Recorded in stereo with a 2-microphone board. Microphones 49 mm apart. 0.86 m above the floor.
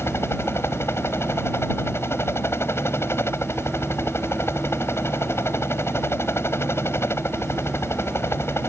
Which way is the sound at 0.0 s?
55° left (ahead or behind).